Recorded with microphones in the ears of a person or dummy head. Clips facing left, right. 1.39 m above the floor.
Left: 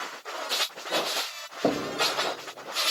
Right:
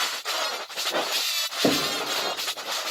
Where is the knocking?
15° right (ahead or behind), 1.4 m.